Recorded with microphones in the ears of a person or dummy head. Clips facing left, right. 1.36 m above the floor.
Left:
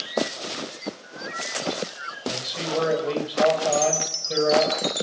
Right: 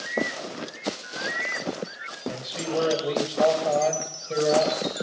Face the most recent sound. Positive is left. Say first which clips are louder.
# left 1 dB
turn(degrees=15)  # may be behind; listen again after turning